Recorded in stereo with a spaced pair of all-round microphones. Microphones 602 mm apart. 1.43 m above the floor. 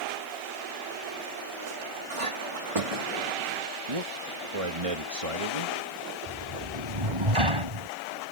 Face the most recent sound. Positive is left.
turn(degrees=-55)  # may be behind; listen again after turning